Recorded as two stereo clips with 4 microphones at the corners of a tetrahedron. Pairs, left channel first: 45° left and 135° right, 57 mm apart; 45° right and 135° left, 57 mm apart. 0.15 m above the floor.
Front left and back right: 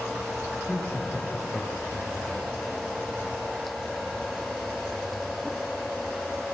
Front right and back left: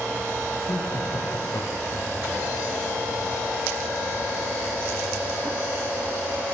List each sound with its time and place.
0.7 s laughter: 35° right, 9 m; by 2.1 s 20° right, 8.5 m